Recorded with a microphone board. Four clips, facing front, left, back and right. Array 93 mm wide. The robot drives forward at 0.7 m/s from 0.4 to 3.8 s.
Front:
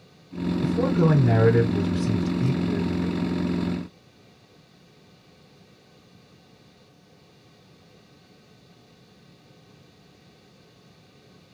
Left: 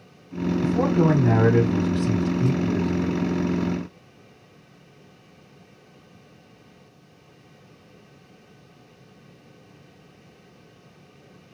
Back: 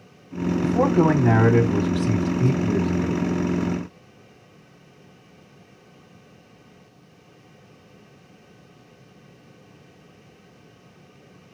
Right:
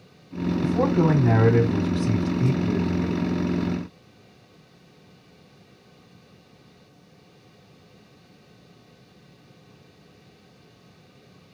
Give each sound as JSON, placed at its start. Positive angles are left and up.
{"t": 0.6, "sound": "a man speaking", "azimuth_deg": 180, "distance_m": 3.0}